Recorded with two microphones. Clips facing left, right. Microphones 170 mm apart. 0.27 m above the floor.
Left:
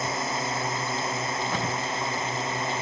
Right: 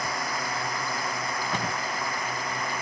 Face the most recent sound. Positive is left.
turn(degrees=25)  # may be behind; listen again after turning